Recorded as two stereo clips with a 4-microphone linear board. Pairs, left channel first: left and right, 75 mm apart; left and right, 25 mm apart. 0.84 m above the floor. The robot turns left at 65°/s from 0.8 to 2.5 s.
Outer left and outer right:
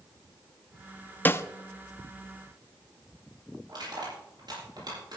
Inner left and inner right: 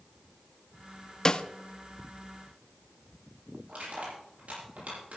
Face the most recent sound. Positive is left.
turn(degrees=-70)  # may be behind; listen again after turning